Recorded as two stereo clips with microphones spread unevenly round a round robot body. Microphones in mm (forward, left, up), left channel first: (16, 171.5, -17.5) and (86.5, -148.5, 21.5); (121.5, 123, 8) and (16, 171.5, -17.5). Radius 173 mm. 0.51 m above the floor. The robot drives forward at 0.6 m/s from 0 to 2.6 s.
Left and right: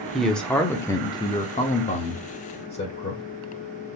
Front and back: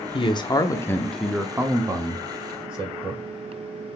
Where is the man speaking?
20° left, 0.9 m; by 3.2 s 165° left, 1.1 m.